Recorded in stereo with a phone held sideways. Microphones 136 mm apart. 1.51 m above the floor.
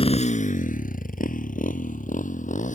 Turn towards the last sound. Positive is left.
turn(degrees=65)  # may be behind; listen again after turning